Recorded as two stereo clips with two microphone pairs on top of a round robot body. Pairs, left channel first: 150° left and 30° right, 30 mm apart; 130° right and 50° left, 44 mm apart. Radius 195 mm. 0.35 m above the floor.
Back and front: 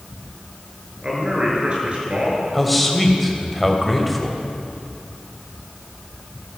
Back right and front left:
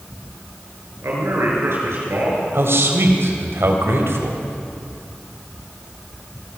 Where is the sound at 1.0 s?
30° left, 7.5 m; by 2.4 s 20° left, 8.5 m.